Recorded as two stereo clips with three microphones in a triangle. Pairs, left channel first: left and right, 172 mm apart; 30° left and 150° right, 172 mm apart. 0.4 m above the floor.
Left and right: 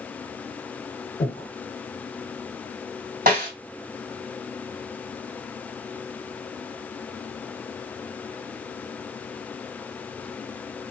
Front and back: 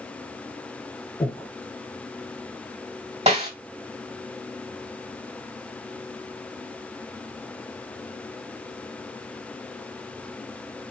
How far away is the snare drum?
About 2.5 m.